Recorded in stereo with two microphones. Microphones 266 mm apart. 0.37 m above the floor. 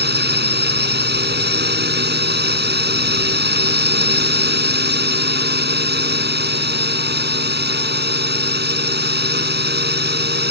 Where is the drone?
40° right (ahead or behind).